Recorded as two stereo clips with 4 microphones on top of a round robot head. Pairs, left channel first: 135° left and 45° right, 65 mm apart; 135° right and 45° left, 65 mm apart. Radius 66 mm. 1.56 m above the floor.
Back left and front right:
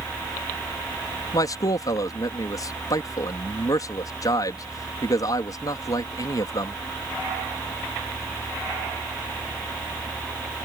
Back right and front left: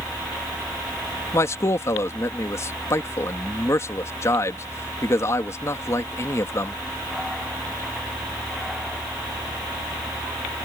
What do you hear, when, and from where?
1.3 s a man speaking: 175° left